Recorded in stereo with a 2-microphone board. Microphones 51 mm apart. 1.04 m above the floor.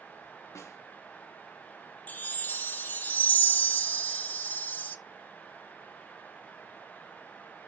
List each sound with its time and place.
0.6 s a snare drum: 75° left (ahead or behind), 1.3 m
2.1 s a chime: 35° left (ahead or behind), 1.0 m